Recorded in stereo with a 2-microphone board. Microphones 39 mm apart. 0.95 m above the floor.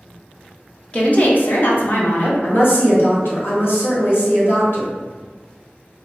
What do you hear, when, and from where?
0.9 s a woman speaking: 30° left (ahead or behind), 0.5 m; by 2.3 s 60° left (ahead or behind), 0.9 m
2.4 s a woman speaking: 65° left (ahead or behind), 1.1 m